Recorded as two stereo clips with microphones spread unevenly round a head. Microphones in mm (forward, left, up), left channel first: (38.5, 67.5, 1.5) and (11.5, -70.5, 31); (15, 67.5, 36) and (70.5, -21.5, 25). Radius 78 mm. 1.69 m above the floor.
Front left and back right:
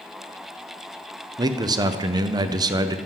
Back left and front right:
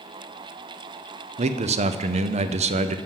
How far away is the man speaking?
About 0.6 m.